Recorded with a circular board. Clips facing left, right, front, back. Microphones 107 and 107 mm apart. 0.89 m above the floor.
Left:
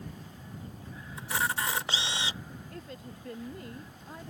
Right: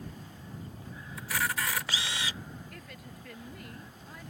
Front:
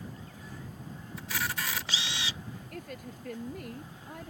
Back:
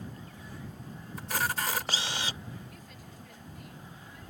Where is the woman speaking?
30° left.